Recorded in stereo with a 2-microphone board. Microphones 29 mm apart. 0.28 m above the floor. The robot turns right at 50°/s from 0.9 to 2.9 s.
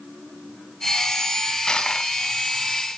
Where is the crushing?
30° left (ahead or behind), 1.5 m; by 2.1 s 35° left (ahead or behind), 1.5 m.